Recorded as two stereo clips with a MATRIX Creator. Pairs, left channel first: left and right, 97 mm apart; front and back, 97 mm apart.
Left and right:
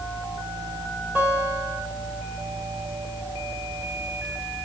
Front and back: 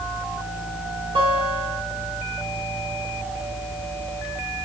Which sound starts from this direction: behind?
A guitar, at 1.1 s.